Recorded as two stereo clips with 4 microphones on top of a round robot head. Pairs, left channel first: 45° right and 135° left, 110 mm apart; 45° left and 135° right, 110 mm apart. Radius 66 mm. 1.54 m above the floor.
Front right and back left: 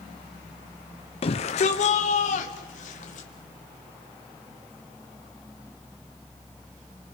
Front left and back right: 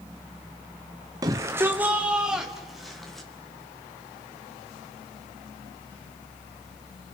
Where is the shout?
75° right, 0.8 m; by 3.3 s 45° right, 1.9 m.